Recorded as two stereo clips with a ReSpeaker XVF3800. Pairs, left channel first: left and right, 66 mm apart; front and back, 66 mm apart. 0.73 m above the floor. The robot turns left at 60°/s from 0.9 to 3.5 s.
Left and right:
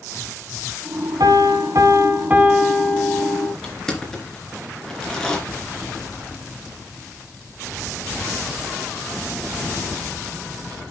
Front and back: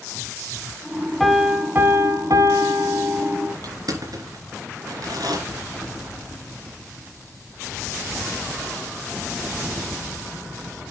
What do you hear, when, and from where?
1.2 s a piano: 85° right, 1.7 m; by 3.5 s 135° left, 1.7 m
3.6 s crushing: 170° left, 3 m